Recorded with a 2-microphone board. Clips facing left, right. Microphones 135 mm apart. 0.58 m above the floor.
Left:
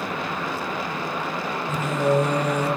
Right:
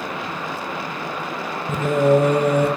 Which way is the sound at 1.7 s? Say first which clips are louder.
Right 6 dB; 60° right (ahead or behind).